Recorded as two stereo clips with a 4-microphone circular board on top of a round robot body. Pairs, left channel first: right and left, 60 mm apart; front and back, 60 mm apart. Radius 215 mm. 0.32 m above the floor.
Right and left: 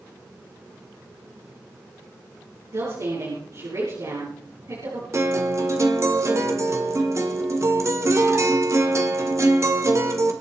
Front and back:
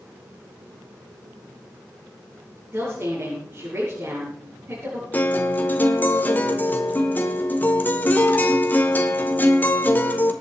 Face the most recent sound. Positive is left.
turn(degrees=55)